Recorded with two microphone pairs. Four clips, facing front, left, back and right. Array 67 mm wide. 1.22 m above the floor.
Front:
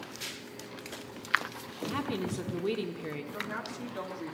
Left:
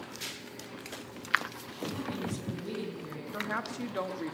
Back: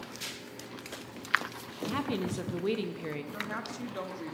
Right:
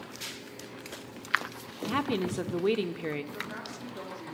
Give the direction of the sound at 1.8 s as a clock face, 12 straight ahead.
3 o'clock.